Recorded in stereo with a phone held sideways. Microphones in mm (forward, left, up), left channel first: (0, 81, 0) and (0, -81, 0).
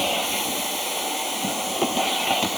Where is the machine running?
Centre (ahead or behind).